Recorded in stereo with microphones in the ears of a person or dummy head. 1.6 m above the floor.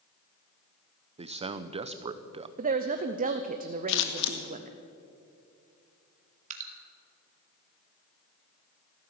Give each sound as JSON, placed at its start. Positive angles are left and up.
{"t": 1.2, "sound": "a man speaking", "side_deg": -30, "distance_m": 0.8}
{"t": 2.6, "sound": "a woman speaking", "side_deg": -40, "distance_m": 0.7}
{"t": 3.9, "sound": "scissors", "side_deg": 60, "distance_m": 1.6}
{"t": 6.5, "sound": "dripping", "side_deg": -40, "distance_m": 2.0}